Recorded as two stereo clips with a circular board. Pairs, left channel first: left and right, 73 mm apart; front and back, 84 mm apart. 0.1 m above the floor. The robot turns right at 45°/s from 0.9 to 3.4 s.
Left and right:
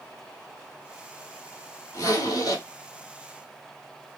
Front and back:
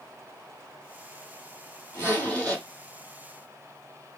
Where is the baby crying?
No baby crying in this recording.